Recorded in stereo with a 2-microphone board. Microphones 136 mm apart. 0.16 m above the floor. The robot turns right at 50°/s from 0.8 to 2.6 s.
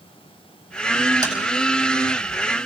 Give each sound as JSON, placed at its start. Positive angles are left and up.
{"t": 1.2, "sound": "tapping", "side_deg": -30, "distance_m": 7.5}